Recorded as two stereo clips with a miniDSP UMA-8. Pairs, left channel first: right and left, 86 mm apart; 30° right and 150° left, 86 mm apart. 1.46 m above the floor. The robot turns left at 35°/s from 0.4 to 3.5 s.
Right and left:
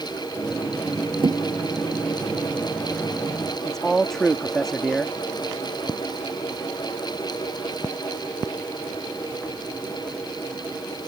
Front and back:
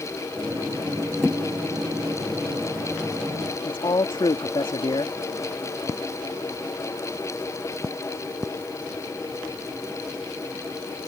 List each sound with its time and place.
1.2 s a thud: 65° left; by 1.4 s 55° left
3.6 s a man speaking: 5° right